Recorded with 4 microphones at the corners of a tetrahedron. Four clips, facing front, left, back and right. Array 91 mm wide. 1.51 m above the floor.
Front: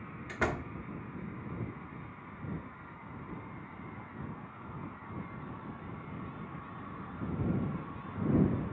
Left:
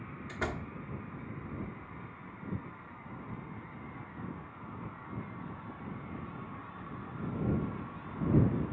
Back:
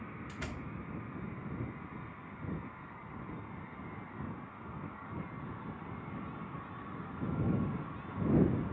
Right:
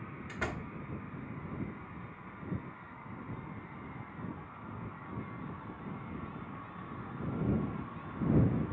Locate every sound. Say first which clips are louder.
0.3 s a door slam: left 2 dB, front 13 dB; 10° left